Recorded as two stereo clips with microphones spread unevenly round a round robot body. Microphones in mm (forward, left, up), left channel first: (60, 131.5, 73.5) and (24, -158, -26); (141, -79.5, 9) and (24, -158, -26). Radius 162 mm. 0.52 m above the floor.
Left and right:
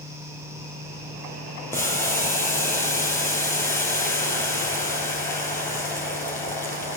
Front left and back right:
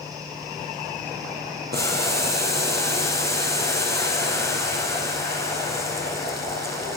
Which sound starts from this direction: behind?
Boiling, at 1.7 s.